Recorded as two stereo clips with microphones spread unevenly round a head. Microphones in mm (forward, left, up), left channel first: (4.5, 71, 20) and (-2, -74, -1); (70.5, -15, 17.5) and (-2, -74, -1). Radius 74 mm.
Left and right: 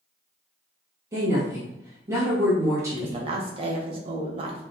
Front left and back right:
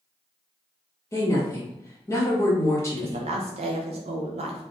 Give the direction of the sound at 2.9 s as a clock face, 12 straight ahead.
5 o'clock.